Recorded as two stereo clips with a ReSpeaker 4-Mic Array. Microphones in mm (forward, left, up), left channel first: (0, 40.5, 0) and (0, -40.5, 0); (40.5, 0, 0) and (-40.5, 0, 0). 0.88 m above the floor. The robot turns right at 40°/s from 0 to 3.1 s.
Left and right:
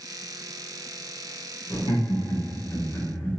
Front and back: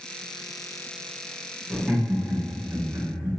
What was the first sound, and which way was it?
Laughter, 95° left.